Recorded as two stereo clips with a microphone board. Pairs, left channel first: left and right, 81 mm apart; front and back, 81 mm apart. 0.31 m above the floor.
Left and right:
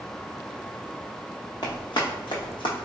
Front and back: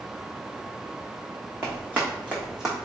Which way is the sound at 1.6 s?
120° left.